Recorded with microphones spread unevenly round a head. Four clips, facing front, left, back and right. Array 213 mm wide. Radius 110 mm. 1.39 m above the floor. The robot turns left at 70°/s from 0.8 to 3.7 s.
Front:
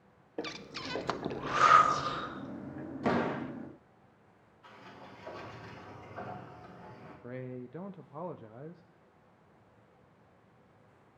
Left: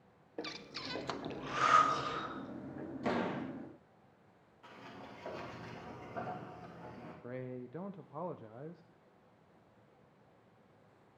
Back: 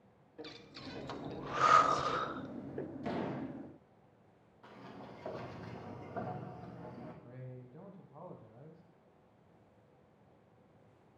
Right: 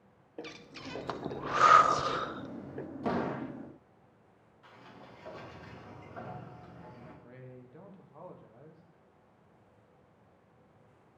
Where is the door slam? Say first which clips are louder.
Right 3 dB, front 9 dB; 15° right, 1.3 m; by 3.5 s 50° right, 1.3 m.